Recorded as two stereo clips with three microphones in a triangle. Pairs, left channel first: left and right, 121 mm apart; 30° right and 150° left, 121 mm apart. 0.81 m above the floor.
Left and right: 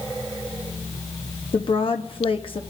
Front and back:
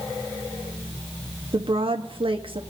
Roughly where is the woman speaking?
Behind left.